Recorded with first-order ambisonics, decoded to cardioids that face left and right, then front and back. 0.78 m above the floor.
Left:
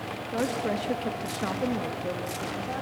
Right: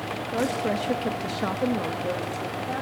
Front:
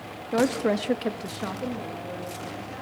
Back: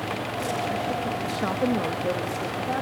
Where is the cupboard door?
I don't hear a cupboard door.